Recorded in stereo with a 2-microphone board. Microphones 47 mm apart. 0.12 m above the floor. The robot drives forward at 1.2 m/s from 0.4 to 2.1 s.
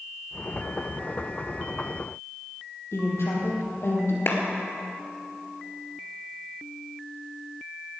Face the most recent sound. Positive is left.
turn(degrees=55)  # may be behind; listen again after turning